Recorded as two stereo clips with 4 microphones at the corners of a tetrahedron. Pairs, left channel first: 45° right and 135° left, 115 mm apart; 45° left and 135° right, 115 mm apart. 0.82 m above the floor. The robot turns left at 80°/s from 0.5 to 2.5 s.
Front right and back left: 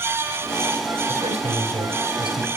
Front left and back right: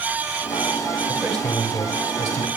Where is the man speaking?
150° left, 6.5 m; by 2.5 s 40° left, 6.5 m.